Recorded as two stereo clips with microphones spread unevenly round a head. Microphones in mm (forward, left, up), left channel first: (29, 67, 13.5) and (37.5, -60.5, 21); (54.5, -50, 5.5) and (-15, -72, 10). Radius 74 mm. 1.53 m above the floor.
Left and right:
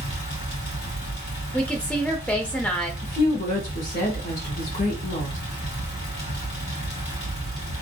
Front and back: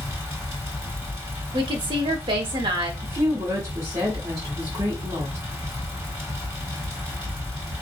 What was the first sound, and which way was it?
A fan, 120° left.